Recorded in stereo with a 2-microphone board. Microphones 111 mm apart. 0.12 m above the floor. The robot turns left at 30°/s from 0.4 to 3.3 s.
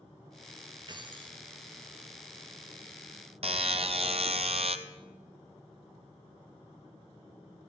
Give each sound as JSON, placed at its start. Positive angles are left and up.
{"t": 0.9, "sound": "keys jangling", "side_deg": -40, "distance_m": 1.5}
{"t": 3.4, "sound": "a buzzer", "side_deg": -55, "distance_m": 0.7}